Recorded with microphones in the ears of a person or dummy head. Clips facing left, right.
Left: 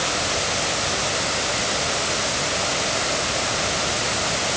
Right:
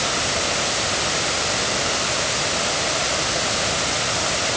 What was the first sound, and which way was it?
Only background noise.